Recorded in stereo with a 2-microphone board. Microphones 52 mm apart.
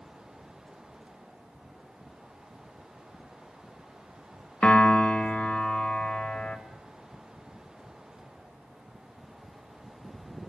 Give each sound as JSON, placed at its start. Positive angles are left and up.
{"t": 4.6, "sound": "a piano", "side_deg": 20, "distance_m": 1.5}